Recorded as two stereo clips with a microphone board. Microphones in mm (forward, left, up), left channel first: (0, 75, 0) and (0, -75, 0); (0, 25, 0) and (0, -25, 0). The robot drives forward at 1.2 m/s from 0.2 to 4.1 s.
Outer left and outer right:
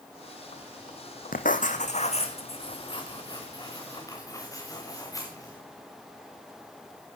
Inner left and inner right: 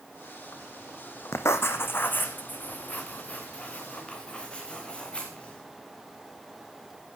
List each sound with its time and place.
1.3 s writing: 65° left (ahead or behind), 1.7 m; by 5.6 s 20° left (ahead or behind), 4.5 m